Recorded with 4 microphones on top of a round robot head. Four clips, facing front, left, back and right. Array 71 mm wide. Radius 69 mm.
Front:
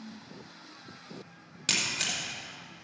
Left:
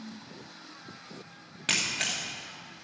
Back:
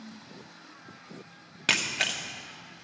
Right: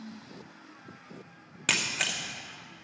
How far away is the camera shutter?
About 1.1 m.